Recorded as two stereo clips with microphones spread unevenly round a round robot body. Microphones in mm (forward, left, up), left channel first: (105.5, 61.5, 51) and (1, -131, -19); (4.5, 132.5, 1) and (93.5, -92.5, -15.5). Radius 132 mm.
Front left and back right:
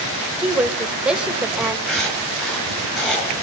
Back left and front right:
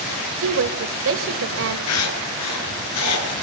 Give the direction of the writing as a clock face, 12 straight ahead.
7 o'clock.